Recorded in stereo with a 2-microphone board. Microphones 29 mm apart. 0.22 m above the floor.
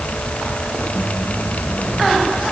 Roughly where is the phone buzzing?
I don't hear a phone buzzing.